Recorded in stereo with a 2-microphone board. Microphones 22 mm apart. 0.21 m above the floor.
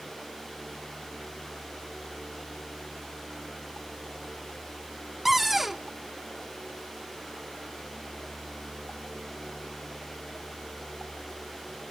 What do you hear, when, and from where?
5.2 s a cupboard door: 10° right (ahead or behind), 0.6 m